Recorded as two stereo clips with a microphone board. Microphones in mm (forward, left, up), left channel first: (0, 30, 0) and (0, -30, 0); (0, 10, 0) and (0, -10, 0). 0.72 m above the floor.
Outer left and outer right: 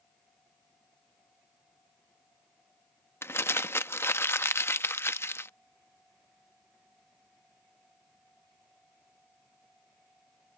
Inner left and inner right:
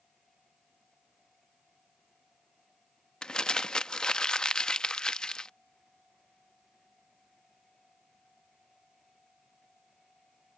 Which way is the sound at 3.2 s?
40° left (ahead or behind).